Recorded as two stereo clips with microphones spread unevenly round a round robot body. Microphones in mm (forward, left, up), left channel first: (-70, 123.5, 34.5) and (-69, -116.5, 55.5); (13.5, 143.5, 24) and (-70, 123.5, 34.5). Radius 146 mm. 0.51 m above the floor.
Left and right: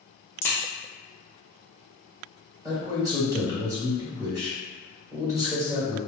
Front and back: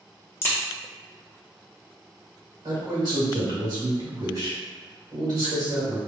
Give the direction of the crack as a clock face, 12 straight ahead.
11 o'clock.